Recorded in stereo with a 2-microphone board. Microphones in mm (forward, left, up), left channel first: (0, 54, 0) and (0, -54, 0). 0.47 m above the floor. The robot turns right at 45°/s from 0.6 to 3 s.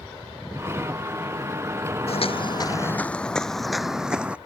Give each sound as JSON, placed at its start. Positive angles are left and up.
{"t": 2.1, "sound": "footsteps", "side_deg": 70}